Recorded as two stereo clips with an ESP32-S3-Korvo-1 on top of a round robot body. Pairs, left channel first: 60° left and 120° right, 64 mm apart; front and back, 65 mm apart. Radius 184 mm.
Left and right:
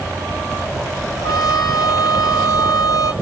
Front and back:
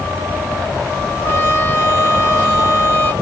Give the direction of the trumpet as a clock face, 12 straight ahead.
10 o'clock.